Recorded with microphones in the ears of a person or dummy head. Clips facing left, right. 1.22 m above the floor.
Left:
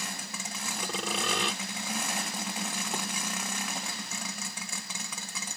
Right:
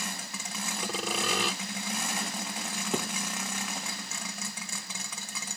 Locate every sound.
0.8 s sawing: 5° right (ahead or behind)
2.9 s a thud: 80° right